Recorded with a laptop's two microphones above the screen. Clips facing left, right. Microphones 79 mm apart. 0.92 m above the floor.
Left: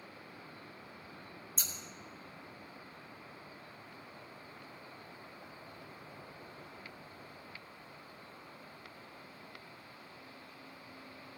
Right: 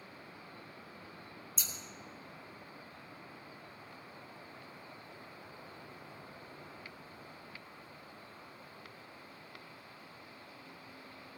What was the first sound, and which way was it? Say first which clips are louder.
Scissors: left 1 dB; 55° left (ahead or behind).